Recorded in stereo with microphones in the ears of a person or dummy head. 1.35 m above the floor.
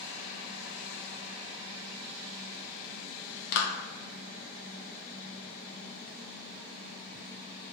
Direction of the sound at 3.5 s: 60° left (ahead or behind).